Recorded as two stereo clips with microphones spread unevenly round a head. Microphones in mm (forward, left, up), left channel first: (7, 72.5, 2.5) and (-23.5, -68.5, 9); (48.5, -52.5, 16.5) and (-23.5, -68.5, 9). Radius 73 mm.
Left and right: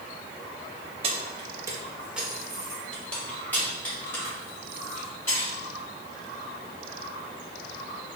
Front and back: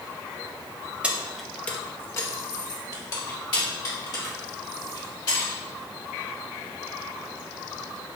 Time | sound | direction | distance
1.0 | keys jangling | 95° right | 0.6 m